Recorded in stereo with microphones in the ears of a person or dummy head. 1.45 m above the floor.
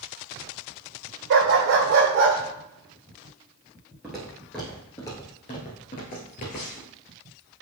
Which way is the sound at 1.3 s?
60° right (ahead or behind).